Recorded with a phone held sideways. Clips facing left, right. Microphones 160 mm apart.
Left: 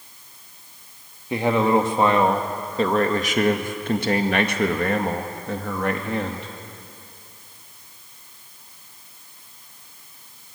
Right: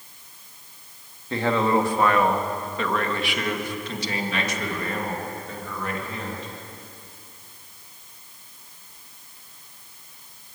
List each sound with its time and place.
1.3 s a man speaking: 15° left (ahead or behind), 2 m; by 6.5 s 65° left (ahead or behind), 2 m